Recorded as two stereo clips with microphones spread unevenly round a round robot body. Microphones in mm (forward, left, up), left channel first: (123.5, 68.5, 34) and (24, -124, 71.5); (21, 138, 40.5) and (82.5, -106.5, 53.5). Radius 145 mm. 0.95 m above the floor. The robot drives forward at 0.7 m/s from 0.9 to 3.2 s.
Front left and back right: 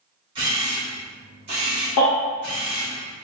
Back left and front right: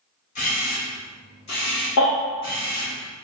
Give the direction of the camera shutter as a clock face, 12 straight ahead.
6 o'clock.